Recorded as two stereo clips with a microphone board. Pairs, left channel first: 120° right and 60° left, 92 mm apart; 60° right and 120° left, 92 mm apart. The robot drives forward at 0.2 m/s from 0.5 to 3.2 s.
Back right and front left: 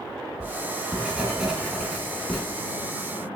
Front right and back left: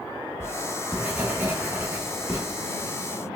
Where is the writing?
110° left, 0.8 m; by 2.4 s 150° left, 1.0 m.